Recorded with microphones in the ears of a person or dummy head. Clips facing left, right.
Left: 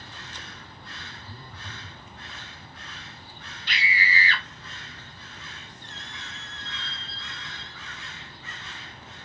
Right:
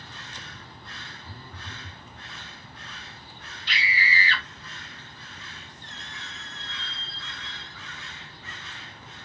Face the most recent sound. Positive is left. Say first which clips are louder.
# left 1 dB
turn(degrees=-40)  # may be behind; listen again after turning